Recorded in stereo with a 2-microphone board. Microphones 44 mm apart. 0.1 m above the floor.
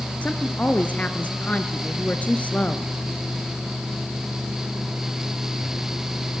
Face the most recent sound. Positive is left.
turn(degrees=35)  # may be behind; listen again after turning